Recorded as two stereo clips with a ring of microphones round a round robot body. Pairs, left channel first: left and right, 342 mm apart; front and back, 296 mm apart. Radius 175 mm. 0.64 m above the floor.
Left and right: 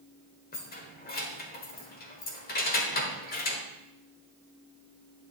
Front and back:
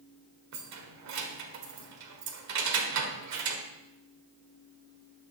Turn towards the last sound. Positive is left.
turn(degrees=155)